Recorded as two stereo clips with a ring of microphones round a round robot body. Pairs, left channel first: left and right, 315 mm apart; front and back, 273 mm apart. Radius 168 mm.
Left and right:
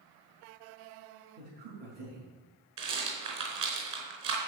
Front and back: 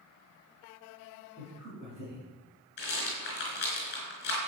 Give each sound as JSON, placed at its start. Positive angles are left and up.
{"t": 1.4, "sound": "a man speaking", "azimuth_deg": -90, "distance_m": 6.0}
{"t": 2.8, "sound": "a rattle", "azimuth_deg": -60, "distance_m": 4.5}